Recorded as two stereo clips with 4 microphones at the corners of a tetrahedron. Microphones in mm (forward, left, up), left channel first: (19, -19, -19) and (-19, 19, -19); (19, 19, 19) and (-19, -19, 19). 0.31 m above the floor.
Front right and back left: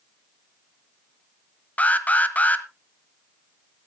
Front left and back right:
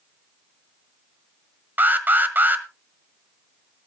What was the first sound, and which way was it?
An alarm, 95° right.